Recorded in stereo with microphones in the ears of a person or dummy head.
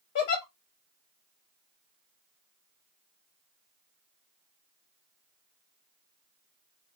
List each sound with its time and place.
0.1 s a giggle: 35° left (ahead or behind), 1.0 m